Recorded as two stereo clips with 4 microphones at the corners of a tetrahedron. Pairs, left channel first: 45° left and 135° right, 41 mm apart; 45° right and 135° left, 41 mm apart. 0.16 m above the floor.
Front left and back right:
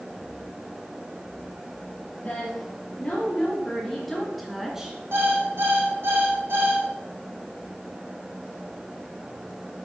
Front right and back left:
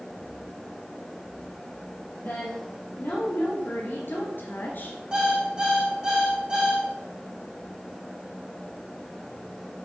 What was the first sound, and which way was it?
A woman speaking, 20° right.